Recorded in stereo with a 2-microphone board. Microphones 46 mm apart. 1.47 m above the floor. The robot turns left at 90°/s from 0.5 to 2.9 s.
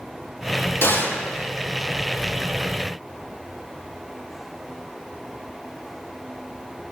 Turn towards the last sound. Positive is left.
turn(degrees=-65)